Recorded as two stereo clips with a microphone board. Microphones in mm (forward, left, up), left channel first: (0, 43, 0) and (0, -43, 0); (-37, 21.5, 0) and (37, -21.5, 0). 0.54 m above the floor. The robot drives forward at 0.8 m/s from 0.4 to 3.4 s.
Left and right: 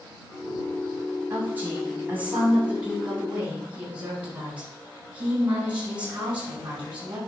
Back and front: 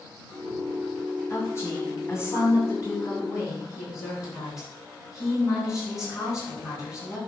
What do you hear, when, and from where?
1.3 s a woman speaking: 155° right, 4 m; by 7.2 s 160° right, 5.5 m